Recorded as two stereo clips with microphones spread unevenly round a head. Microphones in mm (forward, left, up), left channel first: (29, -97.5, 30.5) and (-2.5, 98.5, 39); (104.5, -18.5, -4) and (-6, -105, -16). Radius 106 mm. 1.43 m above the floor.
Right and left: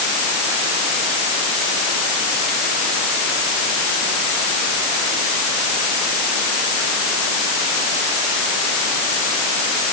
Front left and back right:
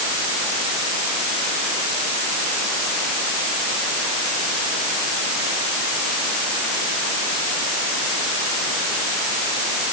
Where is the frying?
No frying in this recording.